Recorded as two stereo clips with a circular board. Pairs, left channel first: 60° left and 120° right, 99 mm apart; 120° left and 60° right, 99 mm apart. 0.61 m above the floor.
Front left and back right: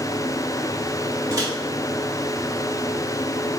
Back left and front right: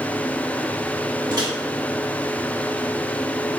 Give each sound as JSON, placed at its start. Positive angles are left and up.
{"t": 1.3, "sound": "a microwave", "azimuth_deg": -85, "distance_m": 0.9}